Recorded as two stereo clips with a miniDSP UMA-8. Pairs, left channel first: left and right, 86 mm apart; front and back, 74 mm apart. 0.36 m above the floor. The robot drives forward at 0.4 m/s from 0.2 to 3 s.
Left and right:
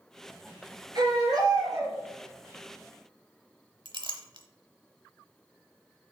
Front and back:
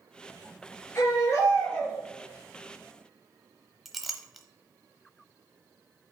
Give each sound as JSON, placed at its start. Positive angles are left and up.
{"t": 0.9, "sound": "a baby crying", "azimuth_deg": -50, "distance_m": 3.5}
{"t": 3.9, "sound": "a clink", "azimuth_deg": -90, "distance_m": 0.9}